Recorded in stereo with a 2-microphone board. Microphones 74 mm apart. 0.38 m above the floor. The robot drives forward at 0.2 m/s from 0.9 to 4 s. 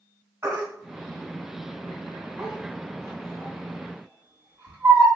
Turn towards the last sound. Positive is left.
turn(degrees=-25)  # may be behind; listen again after turning